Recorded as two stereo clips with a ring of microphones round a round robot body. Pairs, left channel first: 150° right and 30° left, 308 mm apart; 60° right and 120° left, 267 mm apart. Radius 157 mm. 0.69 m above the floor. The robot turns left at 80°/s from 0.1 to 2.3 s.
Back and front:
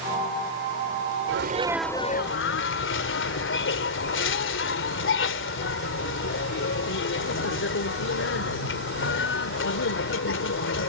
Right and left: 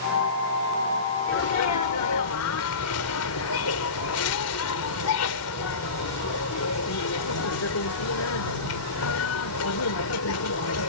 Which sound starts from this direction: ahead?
A sneeze, at 1.3 s.